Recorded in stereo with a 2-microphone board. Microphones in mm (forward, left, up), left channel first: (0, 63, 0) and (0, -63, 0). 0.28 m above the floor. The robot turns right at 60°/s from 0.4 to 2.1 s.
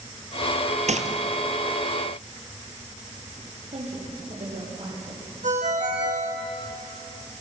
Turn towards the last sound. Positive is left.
turn(degrees=-80)